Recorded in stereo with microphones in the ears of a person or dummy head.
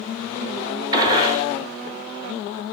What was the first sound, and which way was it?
A gunshot, 15° right (ahead or behind).